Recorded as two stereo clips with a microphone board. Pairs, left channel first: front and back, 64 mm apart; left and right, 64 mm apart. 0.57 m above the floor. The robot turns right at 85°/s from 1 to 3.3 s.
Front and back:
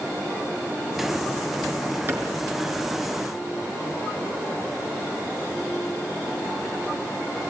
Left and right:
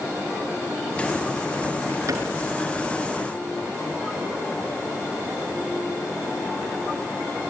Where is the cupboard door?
125° right, 5.5 m; by 2.3 s 105° right, 5.5 m.